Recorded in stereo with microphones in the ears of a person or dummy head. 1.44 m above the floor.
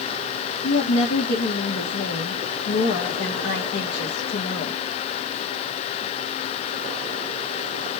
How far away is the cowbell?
No cowbell in this recording.